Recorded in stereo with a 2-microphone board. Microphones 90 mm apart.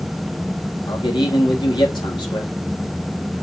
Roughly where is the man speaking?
Left.